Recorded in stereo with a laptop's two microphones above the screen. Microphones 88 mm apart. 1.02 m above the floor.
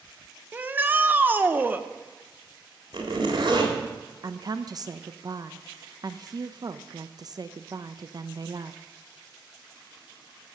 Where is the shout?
20° right (ahead or behind), 0.7 m.